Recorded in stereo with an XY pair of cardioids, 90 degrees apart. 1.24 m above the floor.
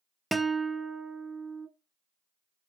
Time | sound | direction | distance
0.3 | a guitar | 15° right | 0.8 m